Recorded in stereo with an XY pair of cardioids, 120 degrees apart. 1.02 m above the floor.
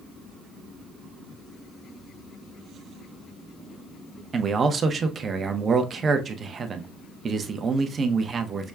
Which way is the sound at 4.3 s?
35° right.